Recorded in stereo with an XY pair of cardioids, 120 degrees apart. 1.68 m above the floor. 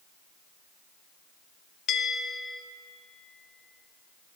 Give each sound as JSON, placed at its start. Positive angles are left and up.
{"t": 1.9, "sound": "a bell", "azimuth_deg": 65, "distance_m": 0.9}